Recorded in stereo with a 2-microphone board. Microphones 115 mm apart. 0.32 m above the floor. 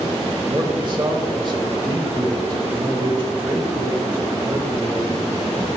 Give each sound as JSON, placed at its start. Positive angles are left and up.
{"t": 0.5, "sound": "a man speaking", "side_deg": -40, "distance_m": 1.3}